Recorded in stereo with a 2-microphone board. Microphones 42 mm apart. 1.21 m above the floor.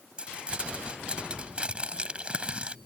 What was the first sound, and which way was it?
Crumpling, 25° right (ahead or behind).